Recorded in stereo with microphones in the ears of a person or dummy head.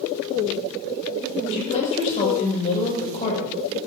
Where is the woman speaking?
35° left (ahead or behind), 6 m.